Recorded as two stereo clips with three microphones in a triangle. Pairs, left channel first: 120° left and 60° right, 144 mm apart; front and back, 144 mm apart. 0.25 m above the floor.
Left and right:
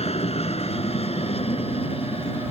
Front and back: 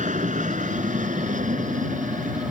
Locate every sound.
0.0 s an aircraft: 160° left; by 2.5 s 165° left